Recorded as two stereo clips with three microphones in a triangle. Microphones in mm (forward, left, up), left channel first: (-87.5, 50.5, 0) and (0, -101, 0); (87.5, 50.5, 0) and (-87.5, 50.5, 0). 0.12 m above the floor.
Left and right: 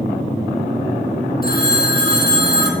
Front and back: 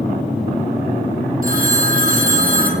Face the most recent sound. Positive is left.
turn(degrees=145)